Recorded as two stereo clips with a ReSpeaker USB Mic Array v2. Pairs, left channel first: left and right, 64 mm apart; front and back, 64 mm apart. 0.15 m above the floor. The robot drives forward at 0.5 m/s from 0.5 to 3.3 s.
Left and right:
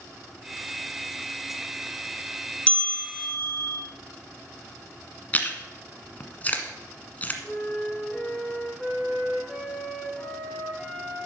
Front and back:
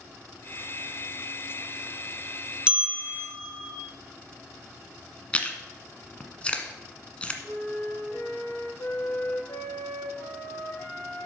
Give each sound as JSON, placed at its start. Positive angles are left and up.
{"t": 2.7, "sound": "a bell", "azimuth_deg": 135, "distance_m": 1.0}
{"t": 5.3, "sound": "chewing", "azimuth_deg": 50, "distance_m": 1.4}
{"t": 7.4, "sound": "a flute", "azimuth_deg": 5, "distance_m": 6.0}